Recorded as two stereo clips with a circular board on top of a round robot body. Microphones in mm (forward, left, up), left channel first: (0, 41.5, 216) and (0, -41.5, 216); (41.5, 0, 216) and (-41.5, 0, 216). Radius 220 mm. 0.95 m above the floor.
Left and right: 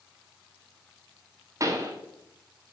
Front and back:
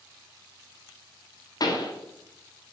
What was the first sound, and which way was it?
A pop, 40° right.